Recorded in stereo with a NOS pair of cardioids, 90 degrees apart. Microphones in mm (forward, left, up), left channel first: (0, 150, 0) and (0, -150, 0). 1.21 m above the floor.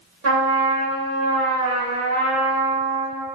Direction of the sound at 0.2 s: 60° right.